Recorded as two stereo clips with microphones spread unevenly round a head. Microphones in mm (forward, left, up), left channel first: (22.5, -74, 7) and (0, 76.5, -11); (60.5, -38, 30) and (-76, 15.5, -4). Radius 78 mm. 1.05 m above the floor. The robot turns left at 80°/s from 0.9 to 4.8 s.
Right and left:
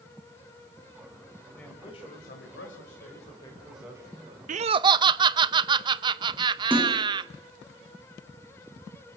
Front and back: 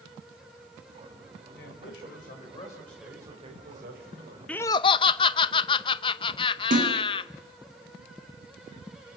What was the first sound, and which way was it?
A man speaking, 5° left.